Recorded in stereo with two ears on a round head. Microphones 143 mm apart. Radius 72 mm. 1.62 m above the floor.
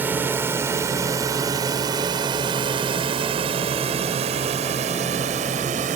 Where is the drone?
10° right (ahead or behind); by 6.0 s 50° right (ahead or behind).